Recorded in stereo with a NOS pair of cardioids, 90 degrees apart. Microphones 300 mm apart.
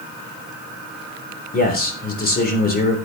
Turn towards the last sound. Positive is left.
turn(degrees=30)